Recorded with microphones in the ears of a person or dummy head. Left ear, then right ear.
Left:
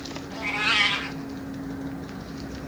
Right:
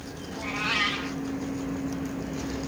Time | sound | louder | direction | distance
0.3 | a cat meowing | left 5 dB | 20° left (ahead or behind) | 1.1 m